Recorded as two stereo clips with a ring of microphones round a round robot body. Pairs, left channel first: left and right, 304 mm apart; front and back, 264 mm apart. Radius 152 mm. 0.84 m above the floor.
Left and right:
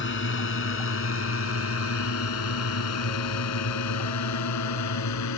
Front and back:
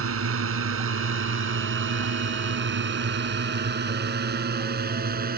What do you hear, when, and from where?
0.0 s a drone: 145° left; by 5.4 s 125° left